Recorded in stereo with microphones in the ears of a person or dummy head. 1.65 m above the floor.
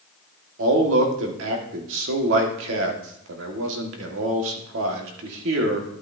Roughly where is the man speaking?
Right.